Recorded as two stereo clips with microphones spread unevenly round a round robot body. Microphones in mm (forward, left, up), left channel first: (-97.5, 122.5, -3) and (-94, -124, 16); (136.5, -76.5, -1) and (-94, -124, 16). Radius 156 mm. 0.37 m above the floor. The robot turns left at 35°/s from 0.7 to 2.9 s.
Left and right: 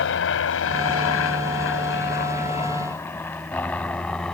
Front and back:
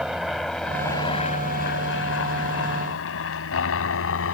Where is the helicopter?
105° left; by 4.3 s 5° left.